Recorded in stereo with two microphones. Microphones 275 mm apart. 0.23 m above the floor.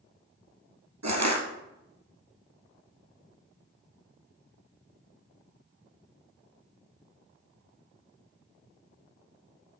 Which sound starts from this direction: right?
Crushing, at 1.0 s.